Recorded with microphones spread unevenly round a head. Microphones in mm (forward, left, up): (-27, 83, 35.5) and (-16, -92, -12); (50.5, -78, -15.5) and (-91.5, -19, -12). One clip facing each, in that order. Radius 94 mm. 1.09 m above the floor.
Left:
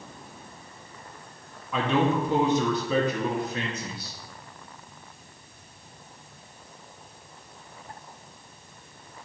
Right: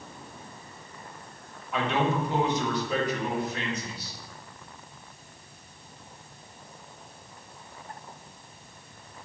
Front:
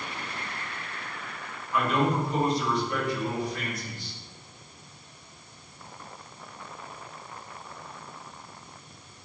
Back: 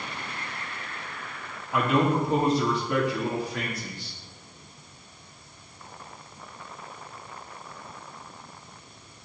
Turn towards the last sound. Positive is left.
turn(degrees=110)